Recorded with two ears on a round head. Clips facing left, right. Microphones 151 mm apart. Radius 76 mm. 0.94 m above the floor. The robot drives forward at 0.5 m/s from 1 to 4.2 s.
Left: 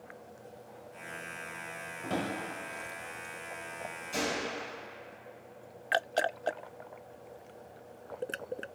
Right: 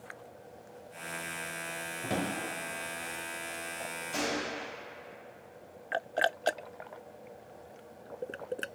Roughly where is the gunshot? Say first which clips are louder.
Even; centre.